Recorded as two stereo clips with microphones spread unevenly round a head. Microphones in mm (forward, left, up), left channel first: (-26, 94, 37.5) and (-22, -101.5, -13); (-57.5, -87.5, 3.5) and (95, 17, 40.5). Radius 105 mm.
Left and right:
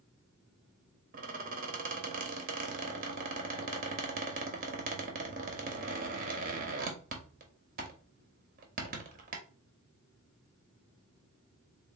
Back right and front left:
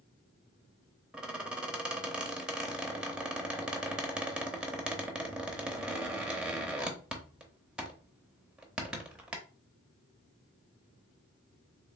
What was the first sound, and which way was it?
A squeak, 35° right.